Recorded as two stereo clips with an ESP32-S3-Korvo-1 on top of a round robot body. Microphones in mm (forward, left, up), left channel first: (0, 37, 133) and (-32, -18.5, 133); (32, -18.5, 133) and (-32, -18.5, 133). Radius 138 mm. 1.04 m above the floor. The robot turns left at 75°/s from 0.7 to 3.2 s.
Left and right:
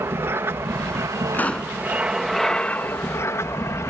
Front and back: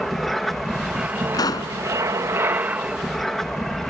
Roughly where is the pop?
Ahead.